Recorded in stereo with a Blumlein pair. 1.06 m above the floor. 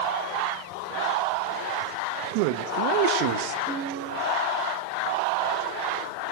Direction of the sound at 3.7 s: 10° right.